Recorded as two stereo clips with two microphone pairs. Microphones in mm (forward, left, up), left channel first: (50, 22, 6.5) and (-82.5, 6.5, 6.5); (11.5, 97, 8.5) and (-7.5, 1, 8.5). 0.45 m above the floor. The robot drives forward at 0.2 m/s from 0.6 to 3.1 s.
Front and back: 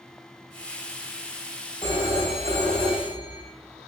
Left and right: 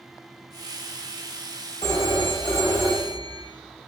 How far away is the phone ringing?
About 1.3 m.